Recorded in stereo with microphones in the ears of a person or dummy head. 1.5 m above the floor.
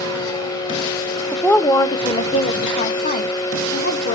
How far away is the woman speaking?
About 0.6 m.